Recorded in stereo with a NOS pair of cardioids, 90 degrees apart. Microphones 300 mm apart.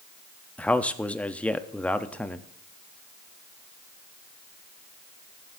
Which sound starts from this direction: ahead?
A man speaking, at 0.6 s.